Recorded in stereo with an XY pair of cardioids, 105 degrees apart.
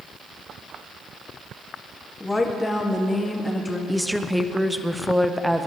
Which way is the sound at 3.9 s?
Straight ahead.